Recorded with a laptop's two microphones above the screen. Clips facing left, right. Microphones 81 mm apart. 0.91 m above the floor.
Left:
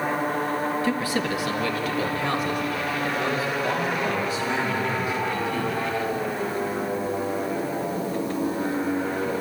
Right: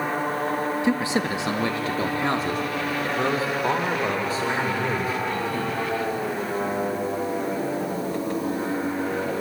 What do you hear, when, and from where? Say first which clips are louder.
0.8 s a man speaking: right 2 dB; 20° right (ahead or behind), 0.9 m; by 5.7 s 35° right (ahead or behind), 3.5 m